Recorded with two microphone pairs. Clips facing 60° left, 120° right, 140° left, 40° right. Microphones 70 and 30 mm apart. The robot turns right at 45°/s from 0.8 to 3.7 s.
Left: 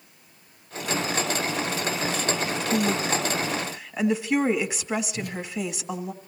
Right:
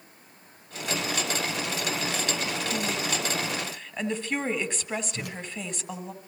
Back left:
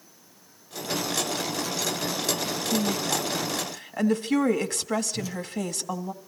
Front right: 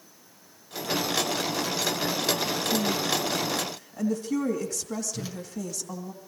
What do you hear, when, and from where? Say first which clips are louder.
2.7 s a woman speaking: left 9 dB, back left 2 dB; 100° left, 2 m; by 6.1 s 145° left, 2 m
5.1 s a whoosh: left 4 dB, back left 4 dB; 100° right, 5 m